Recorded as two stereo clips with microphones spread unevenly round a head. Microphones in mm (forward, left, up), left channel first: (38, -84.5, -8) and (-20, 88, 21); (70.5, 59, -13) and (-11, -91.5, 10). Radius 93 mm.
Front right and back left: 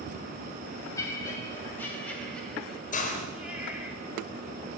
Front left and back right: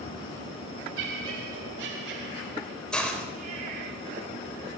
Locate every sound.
1.0 s laughter: 145° right, 4.5 m; by 3.9 s 170° right, 5 m
2.9 s a hiss: 25° right, 4 m